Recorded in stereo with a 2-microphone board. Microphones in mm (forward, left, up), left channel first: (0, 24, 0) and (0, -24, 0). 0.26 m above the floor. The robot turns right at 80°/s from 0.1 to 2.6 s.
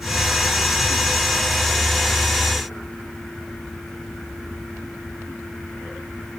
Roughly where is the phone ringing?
I don't hear a phone ringing.